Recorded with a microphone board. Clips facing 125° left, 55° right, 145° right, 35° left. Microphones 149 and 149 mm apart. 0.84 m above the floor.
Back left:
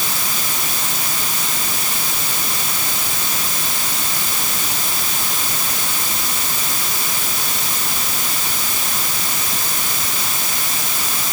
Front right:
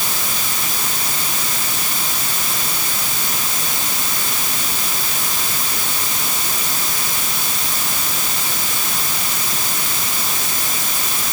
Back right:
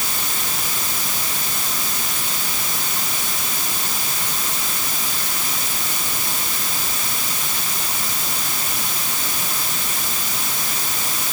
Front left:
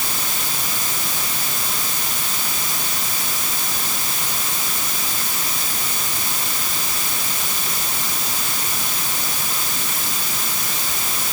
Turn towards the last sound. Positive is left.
No sound to turn to.